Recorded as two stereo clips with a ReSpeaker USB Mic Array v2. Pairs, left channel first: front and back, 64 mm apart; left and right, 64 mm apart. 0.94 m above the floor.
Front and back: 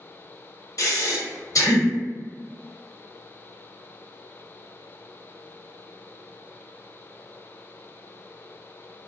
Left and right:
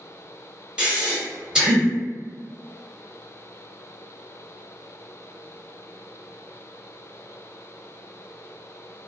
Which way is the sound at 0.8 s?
15° right.